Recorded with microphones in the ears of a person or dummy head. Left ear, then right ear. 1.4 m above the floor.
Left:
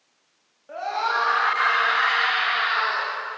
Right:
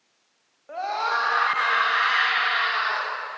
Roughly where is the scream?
Right.